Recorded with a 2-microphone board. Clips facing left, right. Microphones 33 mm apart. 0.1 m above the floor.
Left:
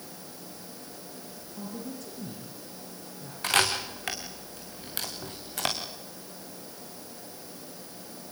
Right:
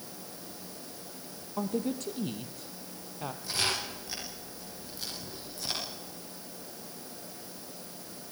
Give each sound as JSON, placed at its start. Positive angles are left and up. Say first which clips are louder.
{"t": 1.6, "sound": "a woman speaking", "louder": "right 7 dB", "side_deg": -65, "distance_m": 3.0}
{"t": 3.4, "sound": "a camera shutter", "louder": "left 7 dB", "side_deg": 80, "distance_m": 6.5}